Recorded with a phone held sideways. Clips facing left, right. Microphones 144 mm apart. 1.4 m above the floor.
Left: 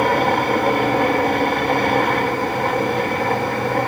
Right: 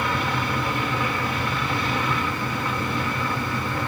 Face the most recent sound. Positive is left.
turn(degrees=60)  # may be behind; listen again after turning